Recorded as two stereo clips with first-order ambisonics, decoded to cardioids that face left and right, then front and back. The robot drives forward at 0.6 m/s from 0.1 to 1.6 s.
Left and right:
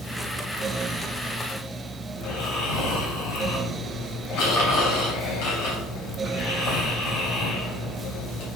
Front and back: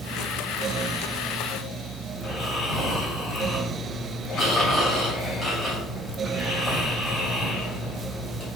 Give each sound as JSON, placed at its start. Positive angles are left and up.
{"t": 2.1, "sound": "snoring", "azimuth_deg": 90, "distance_m": 3.5}